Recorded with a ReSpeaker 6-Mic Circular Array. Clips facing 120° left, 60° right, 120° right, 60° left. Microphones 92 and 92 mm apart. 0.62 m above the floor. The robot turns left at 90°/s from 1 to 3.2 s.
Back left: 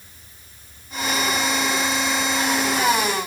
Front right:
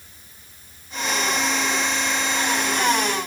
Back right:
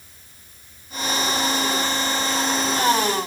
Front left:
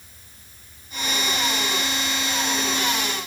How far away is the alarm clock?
I don't hear an alarm clock.